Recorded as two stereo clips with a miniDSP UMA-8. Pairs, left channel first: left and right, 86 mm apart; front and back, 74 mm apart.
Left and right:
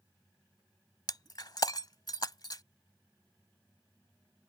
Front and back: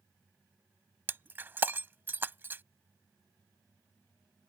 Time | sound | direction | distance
1.1 | breaking glass | 120° left | ?